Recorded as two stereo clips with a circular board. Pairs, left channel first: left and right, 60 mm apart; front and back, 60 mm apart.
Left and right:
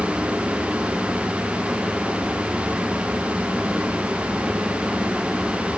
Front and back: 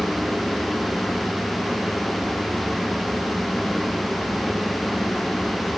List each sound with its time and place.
Only background noise.